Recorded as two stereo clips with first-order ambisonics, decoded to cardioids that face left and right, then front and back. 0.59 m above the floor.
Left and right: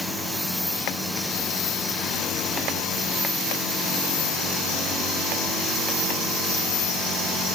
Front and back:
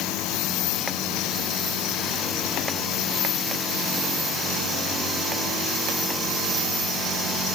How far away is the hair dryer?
No hair dryer in this recording.